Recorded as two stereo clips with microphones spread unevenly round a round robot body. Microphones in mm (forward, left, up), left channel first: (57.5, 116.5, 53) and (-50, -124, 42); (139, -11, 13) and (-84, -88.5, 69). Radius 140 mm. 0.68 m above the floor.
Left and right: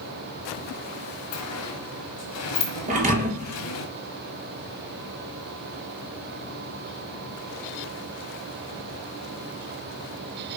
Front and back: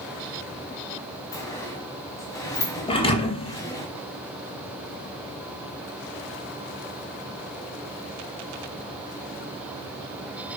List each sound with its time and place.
1.3 s a sliding door: 100° left, 1.7 m
2.9 s a thud: 50° right, 3 m